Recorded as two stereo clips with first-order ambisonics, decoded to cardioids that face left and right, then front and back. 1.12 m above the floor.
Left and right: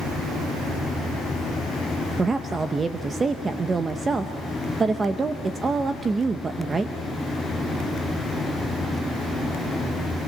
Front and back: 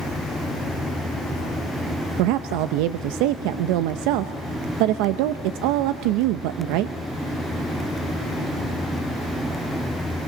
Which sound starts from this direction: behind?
A woman speaking, at 2.2 s.